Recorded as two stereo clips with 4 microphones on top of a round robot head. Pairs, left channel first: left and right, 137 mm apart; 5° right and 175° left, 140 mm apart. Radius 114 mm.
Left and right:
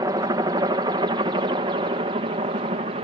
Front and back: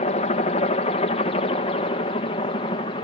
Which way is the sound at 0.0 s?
30° right.